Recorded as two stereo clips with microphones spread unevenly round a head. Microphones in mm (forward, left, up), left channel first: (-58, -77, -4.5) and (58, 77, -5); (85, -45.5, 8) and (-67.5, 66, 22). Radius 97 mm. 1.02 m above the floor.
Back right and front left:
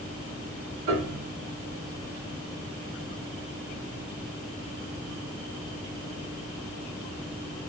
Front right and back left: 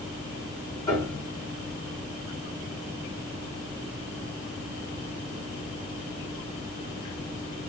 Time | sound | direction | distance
0.9 | a piano | 35° left | 1.9 m